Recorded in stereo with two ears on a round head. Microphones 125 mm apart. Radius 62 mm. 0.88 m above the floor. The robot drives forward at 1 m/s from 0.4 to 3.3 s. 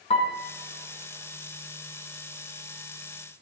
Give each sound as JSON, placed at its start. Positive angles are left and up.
{"t": 0.1, "sound": "a piano", "side_deg": 40, "distance_m": 1.5}